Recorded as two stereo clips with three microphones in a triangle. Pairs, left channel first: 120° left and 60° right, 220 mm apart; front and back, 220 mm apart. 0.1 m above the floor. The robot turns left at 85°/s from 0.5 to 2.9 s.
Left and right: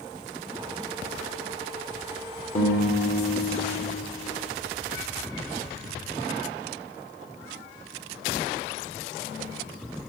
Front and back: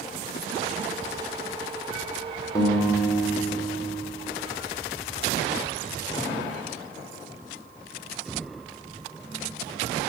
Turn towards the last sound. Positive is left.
turn(degrees=40)